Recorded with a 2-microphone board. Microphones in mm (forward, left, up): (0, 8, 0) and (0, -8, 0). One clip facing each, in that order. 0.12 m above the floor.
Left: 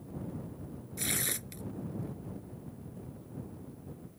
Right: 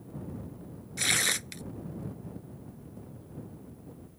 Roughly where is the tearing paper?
Right.